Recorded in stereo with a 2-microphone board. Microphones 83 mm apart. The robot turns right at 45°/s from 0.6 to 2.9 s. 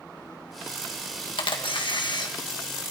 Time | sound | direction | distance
1.4 | a camera shutter | 80° left | 1.8 m